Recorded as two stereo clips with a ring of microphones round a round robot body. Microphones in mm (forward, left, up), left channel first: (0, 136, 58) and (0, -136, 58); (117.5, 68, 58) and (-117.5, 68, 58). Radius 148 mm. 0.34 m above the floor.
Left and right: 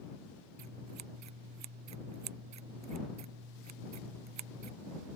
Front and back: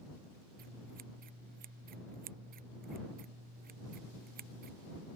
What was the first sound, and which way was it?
Scissors, 120° right.